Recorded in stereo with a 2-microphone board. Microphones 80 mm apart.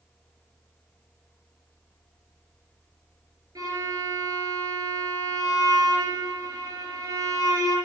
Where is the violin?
50° right (ahead or behind), 4.5 m.